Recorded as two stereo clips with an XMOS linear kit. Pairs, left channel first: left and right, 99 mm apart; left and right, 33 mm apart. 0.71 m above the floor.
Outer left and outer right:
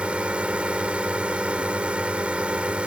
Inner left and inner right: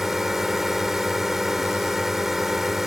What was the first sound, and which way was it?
A drone, 15° right (ahead or behind).